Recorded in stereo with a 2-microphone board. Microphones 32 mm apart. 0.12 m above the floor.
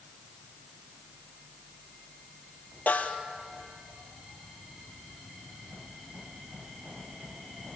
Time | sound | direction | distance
2.9 | a snare drum | 60° left (ahead or behind) | 2 m